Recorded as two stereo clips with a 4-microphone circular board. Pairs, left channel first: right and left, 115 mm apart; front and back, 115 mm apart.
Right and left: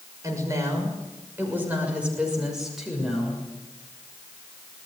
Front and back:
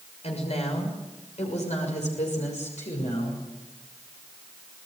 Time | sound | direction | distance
0.2 | a woman speaking | 25° left | 6.5 m